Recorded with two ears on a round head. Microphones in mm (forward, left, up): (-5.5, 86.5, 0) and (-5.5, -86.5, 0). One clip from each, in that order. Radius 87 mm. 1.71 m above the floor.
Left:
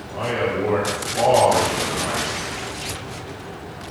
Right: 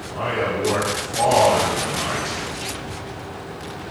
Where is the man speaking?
5° left (ahead or behind), 2.5 m.